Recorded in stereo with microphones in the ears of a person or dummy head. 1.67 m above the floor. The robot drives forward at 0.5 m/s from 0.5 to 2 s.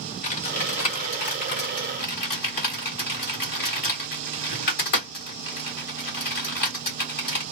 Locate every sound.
0.2 s typing on a keyboard: 40° left (ahead or behind), 1.3 m; by 7.4 s 50° left (ahead or behind), 1.1 m